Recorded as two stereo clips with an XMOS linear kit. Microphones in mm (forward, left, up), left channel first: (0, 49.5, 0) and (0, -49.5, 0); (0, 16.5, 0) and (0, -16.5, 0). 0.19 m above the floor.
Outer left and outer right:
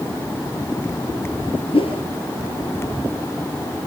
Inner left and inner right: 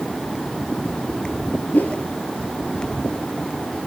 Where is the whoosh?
65° left (ahead or behind), 3 m.